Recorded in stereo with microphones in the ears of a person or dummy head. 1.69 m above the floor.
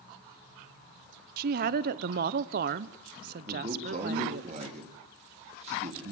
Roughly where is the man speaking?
Right.